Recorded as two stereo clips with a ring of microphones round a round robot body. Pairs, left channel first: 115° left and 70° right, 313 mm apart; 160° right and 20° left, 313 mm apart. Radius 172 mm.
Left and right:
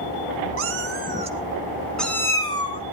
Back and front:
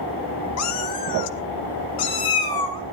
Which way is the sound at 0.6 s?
115° right.